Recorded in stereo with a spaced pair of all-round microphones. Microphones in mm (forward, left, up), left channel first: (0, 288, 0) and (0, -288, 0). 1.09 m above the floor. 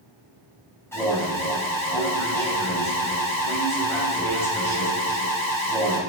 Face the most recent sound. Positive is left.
turn(degrees=5)  # may be behind; listen again after turning